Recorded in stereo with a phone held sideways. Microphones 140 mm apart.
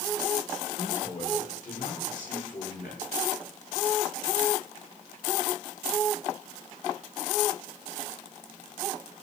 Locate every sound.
0.7 s a man speaking: 65° left (ahead or behind), 7 m; by 3.0 s 70° left (ahead or behind), 5.5 m